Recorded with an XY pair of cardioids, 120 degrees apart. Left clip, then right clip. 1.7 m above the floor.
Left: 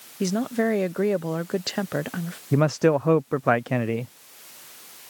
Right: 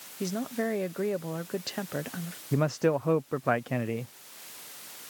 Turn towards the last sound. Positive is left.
turn(degrees=35)